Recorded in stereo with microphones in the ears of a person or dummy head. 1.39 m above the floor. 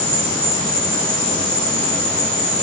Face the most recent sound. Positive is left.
turn(degrees=-20)  # may be behind; listen again after turning